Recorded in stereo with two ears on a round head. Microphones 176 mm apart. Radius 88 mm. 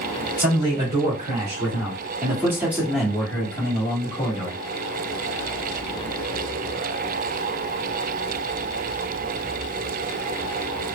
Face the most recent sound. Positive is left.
turn(degrees=40)  # may be behind; listen again after turning